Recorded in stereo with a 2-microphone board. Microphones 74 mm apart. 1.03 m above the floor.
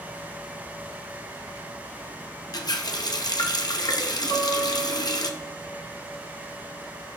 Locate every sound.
2.5 s a running tap: 55° left (ahead or behind), 0.7 m
4.3 s a guitar: 25° left (ahead or behind), 4 m